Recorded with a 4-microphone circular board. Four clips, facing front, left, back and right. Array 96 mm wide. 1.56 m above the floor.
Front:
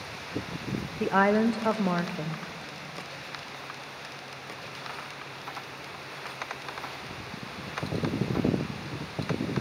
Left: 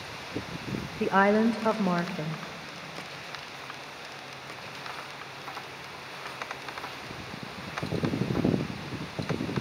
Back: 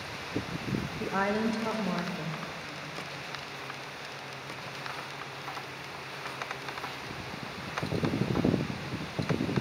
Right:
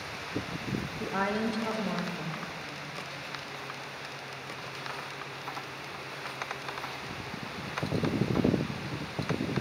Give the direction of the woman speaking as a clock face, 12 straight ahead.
10 o'clock.